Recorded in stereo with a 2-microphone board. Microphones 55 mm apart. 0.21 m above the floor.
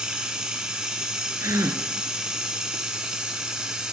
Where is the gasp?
70° right (ahead or behind), 0.7 m.